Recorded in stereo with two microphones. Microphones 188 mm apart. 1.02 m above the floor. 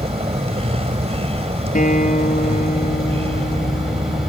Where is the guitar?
45° left (ahead or behind).